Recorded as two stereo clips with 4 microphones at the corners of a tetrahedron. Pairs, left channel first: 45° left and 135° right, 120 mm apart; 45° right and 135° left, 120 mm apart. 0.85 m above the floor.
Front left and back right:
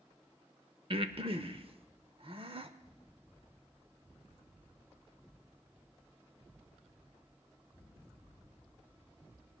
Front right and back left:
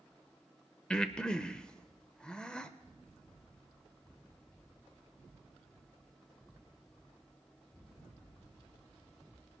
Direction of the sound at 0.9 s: 130° right.